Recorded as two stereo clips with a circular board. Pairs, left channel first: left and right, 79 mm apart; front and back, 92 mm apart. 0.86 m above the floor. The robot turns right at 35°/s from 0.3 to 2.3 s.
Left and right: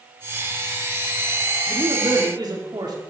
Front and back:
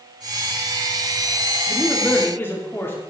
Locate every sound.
1.7 s a man speaking: 85° right, 2.5 m; by 3.0 s 65° right, 2.5 m